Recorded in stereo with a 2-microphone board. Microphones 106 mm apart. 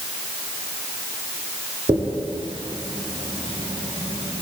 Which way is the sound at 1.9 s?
60° right (ahead or behind).